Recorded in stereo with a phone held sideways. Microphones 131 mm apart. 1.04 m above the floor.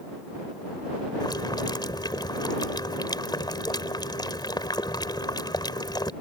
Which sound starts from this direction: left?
Boiling, at 1.2 s.